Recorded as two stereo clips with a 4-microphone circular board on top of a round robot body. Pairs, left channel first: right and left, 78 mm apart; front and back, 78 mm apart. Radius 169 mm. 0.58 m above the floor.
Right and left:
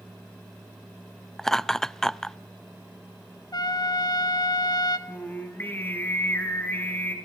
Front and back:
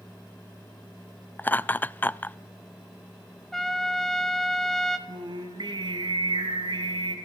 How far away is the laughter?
About 0.6 m.